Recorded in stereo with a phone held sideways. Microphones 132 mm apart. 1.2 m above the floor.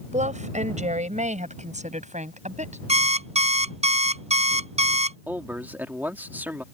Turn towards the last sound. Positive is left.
turn(degrees=-15)  # may be behind; listen again after turning